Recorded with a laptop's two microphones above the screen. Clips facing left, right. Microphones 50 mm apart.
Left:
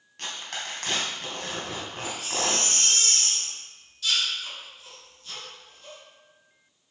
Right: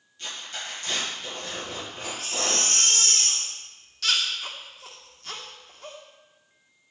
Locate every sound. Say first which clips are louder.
0.2 s tearing paper: left 1 dB; 75° left (ahead or behind), 2.5 m
2.0 s a baby crying: left 1 dB; 70° right (ahead or behind), 1.4 m